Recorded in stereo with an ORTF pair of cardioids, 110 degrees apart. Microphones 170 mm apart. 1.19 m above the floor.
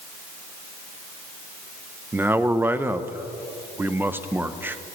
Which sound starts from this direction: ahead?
A man speaking, at 2.1 s.